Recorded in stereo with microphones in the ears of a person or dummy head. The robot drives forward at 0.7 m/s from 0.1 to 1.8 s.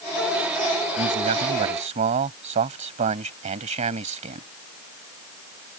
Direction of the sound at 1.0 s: 45° right (ahead or behind).